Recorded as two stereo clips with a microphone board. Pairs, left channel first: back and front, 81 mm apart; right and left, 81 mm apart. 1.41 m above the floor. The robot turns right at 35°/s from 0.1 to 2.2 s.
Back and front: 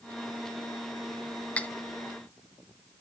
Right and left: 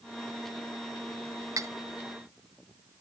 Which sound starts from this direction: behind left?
Cutlery clinking, at 1.6 s.